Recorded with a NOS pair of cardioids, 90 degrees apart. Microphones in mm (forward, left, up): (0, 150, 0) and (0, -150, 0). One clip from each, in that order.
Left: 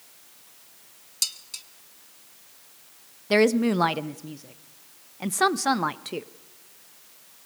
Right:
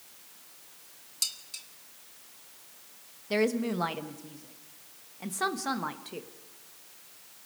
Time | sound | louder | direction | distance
1.2 | dishes clattering | left 4 dB | 25° left | 1.1 m
3.3 | a woman speaking | left 8 dB | 40° left | 0.8 m